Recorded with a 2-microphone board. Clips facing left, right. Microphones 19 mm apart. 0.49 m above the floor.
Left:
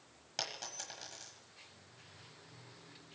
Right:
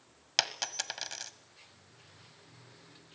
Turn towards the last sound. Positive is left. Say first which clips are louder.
# right 9 dB
turn(degrees=-60)  # may be behind; listen again after turning